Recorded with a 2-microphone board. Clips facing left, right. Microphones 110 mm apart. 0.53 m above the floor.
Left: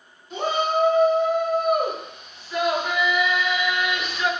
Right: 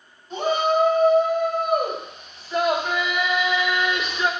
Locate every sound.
0.3 s a shout: 35° right (ahead or behind), 3.5 m; by 4.3 s 25° right (ahead or behind), 1.0 m